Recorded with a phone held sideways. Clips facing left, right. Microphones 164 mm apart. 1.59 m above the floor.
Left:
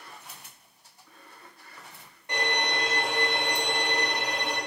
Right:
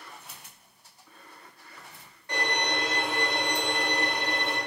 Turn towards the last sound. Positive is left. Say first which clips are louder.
# even
turn(degrees=20)  # may be behind; listen again after turning